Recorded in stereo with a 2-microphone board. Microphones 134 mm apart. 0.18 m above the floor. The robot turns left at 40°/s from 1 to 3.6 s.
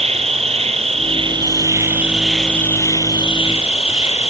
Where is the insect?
130° right, 1.0 m; by 4.3 s 130° left, 1.0 m.